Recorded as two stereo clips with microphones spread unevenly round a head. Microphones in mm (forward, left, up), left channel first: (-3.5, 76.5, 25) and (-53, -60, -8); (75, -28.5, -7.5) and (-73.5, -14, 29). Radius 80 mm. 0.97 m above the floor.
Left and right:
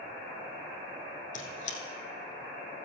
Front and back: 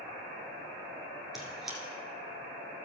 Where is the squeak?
90° left, 3 m.